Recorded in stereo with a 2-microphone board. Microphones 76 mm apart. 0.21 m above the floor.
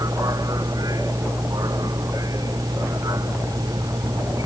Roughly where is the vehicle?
Right.